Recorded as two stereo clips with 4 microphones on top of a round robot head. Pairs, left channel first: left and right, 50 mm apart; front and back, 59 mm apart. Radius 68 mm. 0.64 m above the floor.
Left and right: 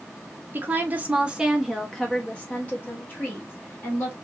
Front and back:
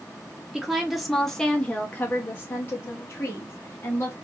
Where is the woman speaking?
105° right, 1.0 m; by 4.2 s 50° left, 1.8 m.